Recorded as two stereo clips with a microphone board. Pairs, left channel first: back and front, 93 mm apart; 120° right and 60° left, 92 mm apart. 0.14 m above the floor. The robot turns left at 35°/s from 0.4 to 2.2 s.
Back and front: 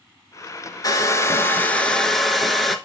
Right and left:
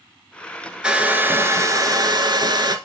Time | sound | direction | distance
0.8 | a hair dryer | 140° left | 0.7 m